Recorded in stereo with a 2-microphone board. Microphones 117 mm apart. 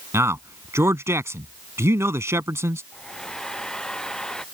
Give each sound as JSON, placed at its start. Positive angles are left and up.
{"t": 0.1, "sound": "a man speaking", "side_deg": -25}
{"t": 2.9, "sound": "a hair dryer", "side_deg": 5}